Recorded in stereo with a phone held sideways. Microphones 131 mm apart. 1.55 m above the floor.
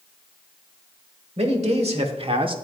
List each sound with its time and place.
1.4 s a man speaking: 55° right (ahead or behind), 1.8 m; by 2.5 s 40° right (ahead or behind), 0.9 m